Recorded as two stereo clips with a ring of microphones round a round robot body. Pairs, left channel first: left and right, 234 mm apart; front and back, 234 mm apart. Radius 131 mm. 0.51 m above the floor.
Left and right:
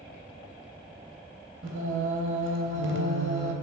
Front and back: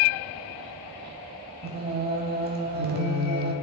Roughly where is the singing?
Behind right.